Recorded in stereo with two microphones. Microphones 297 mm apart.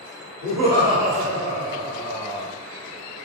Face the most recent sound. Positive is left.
turn(degrees=-40)  # may be behind; listen again after turning